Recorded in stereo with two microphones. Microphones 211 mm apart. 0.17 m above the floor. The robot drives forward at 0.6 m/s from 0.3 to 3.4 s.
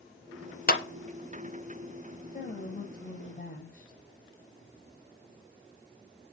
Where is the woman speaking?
35° left (ahead or behind), 7 m; by 4.0 s 40° left (ahead or behind), 6.5 m.